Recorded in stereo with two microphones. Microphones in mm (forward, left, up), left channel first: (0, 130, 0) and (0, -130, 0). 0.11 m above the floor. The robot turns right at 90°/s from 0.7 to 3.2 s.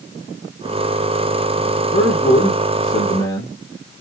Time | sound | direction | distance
1.9 | a man speaking | 15° left (ahead or behind) | 1.8 m